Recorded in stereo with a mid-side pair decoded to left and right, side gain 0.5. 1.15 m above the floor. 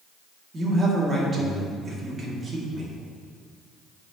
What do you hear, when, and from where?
0.5 s a man speaking: 30° right, 2.5 m